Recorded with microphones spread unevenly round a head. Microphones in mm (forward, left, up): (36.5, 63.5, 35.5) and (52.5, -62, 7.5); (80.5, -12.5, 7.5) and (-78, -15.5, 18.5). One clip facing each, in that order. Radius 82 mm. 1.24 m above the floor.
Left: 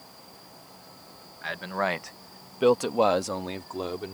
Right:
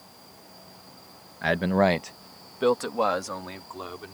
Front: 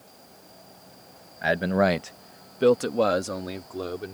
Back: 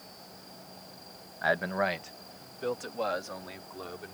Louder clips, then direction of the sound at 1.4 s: Right 8 dB, front 7 dB; 65° right.